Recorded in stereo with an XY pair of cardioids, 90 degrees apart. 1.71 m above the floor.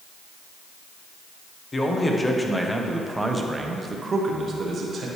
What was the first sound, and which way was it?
A man speaking, 25° left.